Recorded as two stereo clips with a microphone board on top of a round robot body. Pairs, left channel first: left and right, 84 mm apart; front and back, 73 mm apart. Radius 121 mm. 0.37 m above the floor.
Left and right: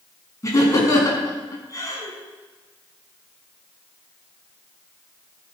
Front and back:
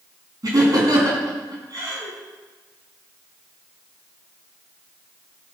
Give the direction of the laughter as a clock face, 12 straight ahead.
7 o'clock.